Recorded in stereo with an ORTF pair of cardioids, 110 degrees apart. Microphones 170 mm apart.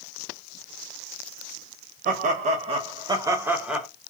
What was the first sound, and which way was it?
Laughter, 55° right.